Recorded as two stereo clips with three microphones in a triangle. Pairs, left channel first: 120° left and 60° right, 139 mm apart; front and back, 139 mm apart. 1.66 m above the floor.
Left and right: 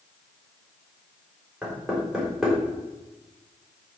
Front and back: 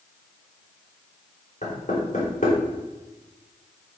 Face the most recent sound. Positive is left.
turn(degrees=30)